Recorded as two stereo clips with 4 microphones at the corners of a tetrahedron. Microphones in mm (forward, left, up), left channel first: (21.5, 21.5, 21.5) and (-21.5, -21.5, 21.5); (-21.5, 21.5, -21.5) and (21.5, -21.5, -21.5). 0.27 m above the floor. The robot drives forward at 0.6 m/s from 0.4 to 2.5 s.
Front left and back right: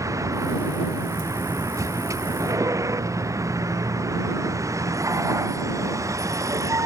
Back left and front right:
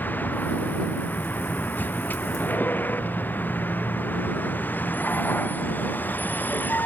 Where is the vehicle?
165° right.